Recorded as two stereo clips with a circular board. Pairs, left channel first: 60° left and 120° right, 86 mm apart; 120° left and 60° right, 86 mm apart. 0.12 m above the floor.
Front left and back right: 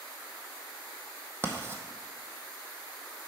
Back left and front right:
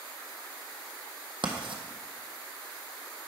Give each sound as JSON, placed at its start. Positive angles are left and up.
{"t": 1.4, "sound": "writing", "azimuth_deg": -60, "distance_m": 1.0}